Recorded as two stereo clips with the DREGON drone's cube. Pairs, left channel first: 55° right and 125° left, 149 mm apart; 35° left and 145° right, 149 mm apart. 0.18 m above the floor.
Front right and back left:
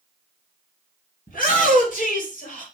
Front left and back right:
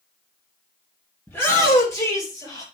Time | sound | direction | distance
1.3 | a shout | 40° right | 5 m